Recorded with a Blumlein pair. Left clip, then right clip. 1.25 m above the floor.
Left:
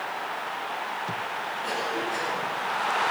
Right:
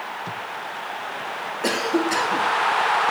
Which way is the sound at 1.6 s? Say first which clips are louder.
Right 9 dB; 40° right.